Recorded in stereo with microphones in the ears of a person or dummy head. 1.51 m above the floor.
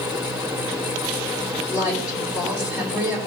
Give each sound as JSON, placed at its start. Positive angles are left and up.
{"t": 0.0, "sound": "a fan", "side_deg": -5, "distance_m": 0.9}
{"t": 1.7, "sound": "a woman speaking", "side_deg": -10, "distance_m": 3.5}